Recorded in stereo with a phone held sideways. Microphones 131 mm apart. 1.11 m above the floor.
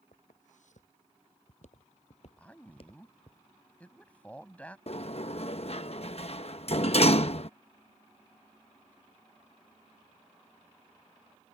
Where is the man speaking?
10° left (ahead or behind).